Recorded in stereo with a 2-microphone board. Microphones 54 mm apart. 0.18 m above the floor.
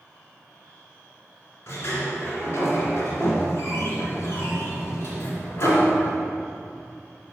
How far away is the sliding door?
About 2 m.